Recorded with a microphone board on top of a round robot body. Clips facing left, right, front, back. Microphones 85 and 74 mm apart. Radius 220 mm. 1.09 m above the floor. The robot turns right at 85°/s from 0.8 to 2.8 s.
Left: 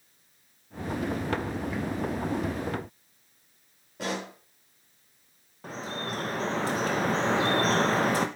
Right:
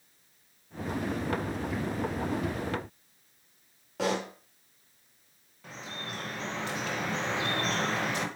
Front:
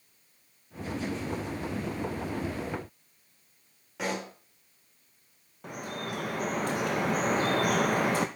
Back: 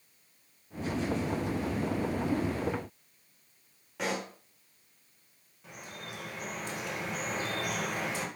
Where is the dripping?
40° left, 0.7 m.